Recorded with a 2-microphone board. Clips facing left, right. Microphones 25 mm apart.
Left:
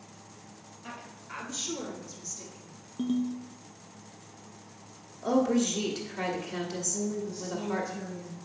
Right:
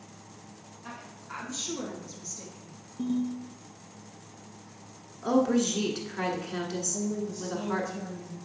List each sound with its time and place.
0.8 s a woman speaking: 10° left (ahead or behind), 2.5 m; by 2.8 s 25° right (ahead or behind), 1.9 m
3.0 s a ringtone: 35° left (ahead or behind), 1.4 m
5.2 s a woman speaking: 20° right (ahead or behind), 1.2 m
6.9 s a woman speaking: 25° left (ahead or behind), 2.5 m